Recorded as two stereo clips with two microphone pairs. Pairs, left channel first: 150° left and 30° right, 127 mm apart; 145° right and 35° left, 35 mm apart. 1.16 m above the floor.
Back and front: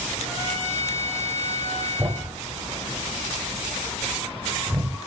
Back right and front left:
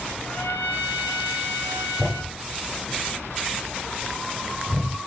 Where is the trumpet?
135° right, 3.5 m.